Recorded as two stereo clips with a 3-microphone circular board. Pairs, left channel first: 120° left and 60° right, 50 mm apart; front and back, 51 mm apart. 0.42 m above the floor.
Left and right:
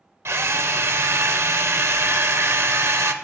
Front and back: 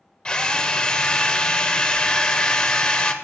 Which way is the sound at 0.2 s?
75° right.